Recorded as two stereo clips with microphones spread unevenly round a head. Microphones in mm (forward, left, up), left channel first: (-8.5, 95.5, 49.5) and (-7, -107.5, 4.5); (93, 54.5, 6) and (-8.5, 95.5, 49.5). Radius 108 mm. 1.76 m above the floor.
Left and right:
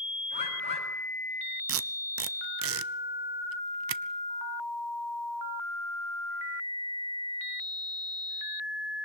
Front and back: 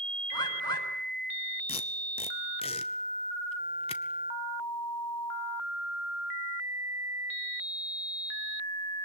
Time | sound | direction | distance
0.3 | a bird | 30° left | 7.5 m
1.7 | tape being pulled | 70° right | 0.8 m